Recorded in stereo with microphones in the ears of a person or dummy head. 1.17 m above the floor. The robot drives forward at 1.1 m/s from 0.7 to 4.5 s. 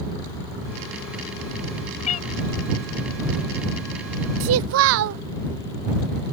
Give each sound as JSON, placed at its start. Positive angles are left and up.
{"t": 2.0, "sound": "a cat meowing", "side_deg": 40}
{"t": 4.4, "sound": "a child speaking", "side_deg": -70}